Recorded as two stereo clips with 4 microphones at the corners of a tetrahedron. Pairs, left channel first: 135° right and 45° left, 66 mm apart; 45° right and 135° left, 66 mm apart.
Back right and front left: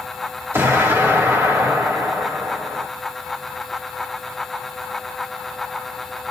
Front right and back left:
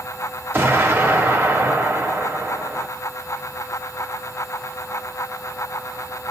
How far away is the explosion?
About 1.5 m.